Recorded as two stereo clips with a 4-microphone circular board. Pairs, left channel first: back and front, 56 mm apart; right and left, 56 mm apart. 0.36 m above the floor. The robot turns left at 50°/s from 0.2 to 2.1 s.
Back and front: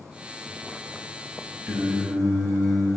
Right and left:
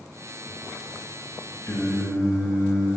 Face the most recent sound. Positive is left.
turn(degrees=-95)